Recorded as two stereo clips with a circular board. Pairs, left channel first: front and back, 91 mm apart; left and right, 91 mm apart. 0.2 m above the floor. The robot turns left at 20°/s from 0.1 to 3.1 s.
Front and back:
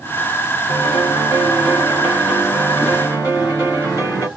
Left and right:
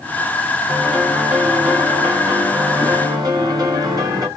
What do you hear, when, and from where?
0.7 s a piano: 5° right, 3 m; by 4.3 s 50° right, 3 m